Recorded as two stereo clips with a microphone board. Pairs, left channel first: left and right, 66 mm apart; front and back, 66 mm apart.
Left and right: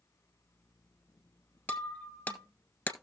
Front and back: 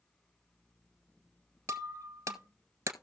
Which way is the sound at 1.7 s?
155° left.